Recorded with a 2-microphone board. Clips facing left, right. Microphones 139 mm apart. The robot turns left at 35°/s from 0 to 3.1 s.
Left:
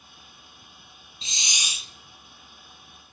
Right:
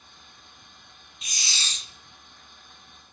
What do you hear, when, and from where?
1.2 s a hiss: 30° left (ahead or behind), 0.6 m; by 1.9 s 5° left (ahead or behind), 0.6 m